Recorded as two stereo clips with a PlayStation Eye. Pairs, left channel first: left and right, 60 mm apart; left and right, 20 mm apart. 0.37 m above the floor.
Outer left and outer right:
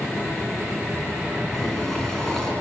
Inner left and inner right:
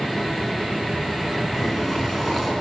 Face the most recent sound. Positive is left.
turn(degrees=5)  # may be behind; listen again after turning